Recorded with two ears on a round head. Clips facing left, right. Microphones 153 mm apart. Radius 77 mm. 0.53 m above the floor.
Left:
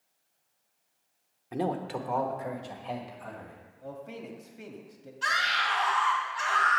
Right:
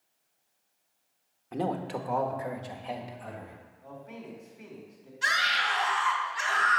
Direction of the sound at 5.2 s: 10° right (ahead or behind).